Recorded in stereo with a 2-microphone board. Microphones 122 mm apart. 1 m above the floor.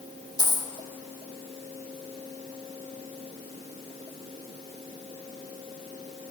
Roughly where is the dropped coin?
Right.